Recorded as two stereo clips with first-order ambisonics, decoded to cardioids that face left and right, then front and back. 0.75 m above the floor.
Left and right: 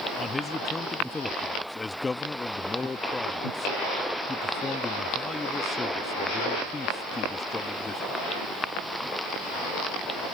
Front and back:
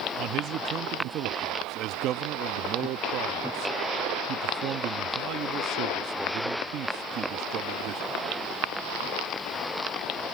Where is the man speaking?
165° left.